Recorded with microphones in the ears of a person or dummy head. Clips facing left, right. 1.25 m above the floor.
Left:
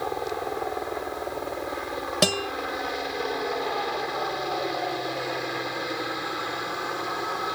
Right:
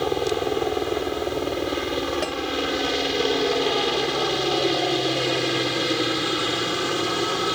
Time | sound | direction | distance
0.0 | a helicopter | 45° right (ahead or behind) | ?
2.2 | a guitar | 60° left (ahead or behind) | ?